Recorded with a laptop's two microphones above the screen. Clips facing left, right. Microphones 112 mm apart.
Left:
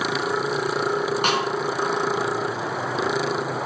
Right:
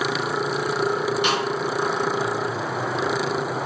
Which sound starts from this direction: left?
A snare drum, at 1.2 s.